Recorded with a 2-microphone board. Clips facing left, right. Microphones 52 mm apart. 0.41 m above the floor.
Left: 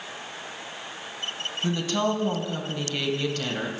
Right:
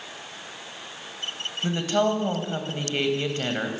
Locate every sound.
1.6 s a woman speaking: 25° right (ahead or behind), 2.5 m